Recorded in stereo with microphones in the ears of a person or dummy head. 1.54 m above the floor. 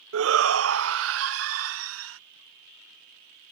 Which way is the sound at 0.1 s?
70° right (ahead or behind).